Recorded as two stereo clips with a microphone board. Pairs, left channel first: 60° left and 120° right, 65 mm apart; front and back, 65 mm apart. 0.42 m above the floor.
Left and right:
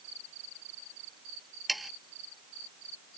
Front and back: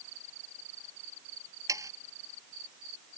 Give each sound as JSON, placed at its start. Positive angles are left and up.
{"t": 1.7, "sound": "sawing", "azimuth_deg": 150}